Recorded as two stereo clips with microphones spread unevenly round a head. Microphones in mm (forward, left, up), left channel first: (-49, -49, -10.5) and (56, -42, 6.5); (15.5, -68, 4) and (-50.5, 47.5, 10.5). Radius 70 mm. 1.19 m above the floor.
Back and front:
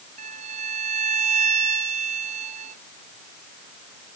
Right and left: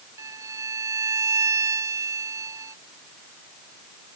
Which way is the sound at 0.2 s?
50° left.